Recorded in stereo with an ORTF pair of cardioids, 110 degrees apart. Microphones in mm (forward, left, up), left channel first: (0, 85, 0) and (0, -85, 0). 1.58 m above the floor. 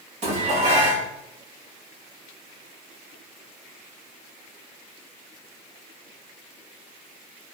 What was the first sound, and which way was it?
Dishes clattering, 45° right.